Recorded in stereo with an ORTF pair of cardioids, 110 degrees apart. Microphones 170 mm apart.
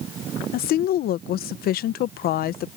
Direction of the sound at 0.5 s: 65° left.